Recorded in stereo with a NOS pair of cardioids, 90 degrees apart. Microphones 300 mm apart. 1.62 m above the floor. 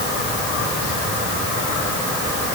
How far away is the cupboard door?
I don't hear a cupboard door.